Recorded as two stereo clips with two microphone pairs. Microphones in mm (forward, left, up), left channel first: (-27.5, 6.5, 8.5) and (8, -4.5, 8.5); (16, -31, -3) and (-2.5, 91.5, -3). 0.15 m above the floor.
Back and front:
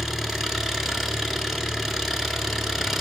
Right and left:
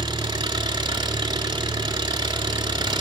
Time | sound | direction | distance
0.0 | an engine running | 60° left | 0.9 m